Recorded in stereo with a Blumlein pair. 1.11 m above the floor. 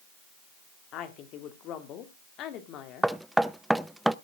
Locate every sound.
0.9 s a woman speaking: 35° left, 2.5 m
3.0 s knocking: straight ahead, 0.6 m